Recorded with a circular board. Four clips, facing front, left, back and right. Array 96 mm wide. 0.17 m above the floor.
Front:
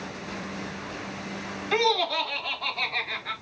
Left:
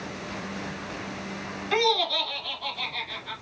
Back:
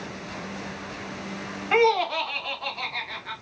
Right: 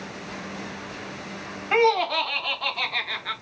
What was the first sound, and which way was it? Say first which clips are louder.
Laughter: right 5 dB, back 4 dB; 135° right.